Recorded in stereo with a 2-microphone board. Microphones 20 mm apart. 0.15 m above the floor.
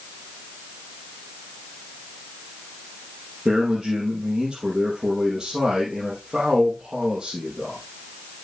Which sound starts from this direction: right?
A man speaking, at 3.5 s.